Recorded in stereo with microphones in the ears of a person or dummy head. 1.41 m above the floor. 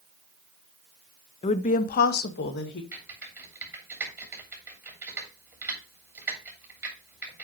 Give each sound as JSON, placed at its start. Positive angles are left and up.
{"t": 1.4, "sound": "a woman speaking", "side_deg": 35, "distance_m": 0.5}
{"t": 2.9, "sound": "typing on a keyboard", "side_deg": -15, "distance_m": 3.0}